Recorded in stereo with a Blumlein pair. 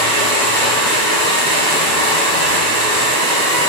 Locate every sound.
0.0 s a machine running: 20° right, 1.1 m